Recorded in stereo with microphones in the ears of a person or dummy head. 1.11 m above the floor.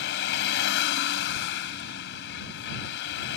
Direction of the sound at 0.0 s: 70° left (ahead or behind).